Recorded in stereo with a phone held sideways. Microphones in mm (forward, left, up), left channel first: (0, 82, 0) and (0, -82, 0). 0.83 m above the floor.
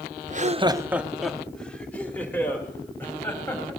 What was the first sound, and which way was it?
Laughter, 45° right (ahead or behind).